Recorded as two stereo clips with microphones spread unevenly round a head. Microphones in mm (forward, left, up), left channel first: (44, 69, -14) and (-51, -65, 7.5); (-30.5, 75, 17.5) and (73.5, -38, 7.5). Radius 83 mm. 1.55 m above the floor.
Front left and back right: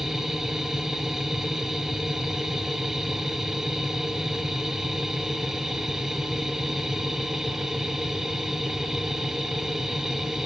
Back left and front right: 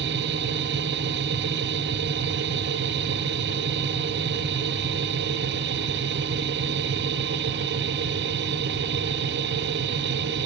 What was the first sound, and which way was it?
A machine running, 35° right.